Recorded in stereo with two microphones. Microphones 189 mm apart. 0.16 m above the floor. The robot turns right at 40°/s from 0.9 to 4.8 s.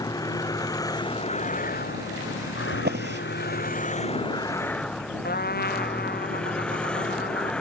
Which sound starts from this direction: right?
A drawer, at 2.7 s.